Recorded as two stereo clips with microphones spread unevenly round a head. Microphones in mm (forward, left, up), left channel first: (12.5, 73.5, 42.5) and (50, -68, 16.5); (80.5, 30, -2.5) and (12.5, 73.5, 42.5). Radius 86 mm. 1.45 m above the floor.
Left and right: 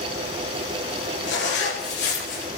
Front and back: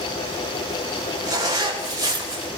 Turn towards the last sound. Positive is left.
turn(degrees=110)